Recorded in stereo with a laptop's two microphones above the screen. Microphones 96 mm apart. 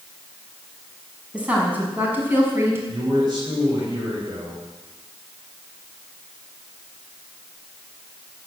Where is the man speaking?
50° right (ahead or behind), 5 m.